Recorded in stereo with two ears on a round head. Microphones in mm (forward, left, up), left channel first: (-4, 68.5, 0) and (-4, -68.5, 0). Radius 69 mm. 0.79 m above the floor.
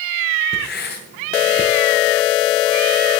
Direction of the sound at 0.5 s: 75° left (ahead or behind).